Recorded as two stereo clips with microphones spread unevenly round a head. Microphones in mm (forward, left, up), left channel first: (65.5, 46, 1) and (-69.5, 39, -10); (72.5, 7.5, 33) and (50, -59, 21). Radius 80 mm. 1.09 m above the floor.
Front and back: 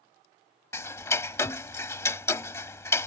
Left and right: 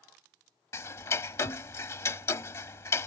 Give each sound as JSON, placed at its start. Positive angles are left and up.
{"t": 0.7, "sound": "ticking", "azimuth_deg": 60}